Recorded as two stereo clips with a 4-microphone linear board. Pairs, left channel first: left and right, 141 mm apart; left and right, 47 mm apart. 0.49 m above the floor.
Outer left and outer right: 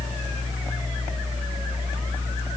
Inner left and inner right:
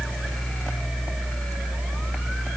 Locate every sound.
Only background noise.